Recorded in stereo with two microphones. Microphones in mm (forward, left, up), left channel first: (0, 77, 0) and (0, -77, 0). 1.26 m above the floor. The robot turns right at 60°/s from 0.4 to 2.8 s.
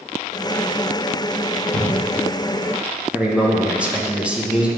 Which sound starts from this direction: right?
A cupboard door, at 1.7 s.